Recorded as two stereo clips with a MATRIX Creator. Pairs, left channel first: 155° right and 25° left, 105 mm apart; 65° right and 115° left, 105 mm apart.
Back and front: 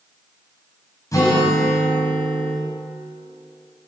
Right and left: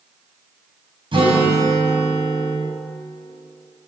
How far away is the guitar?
About 3 m.